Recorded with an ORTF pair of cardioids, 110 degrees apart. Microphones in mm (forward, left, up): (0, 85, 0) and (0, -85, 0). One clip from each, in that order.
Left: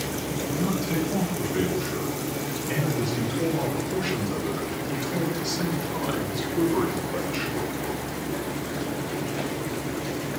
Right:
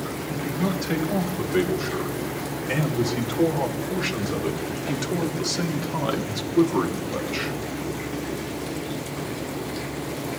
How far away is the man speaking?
About 5.5 m.